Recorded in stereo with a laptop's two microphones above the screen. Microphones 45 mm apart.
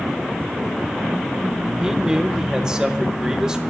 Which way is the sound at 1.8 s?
15° right (ahead or behind).